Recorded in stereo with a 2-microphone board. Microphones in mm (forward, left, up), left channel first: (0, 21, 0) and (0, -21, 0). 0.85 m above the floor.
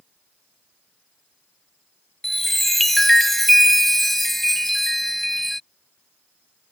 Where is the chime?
5° left (ahead or behind).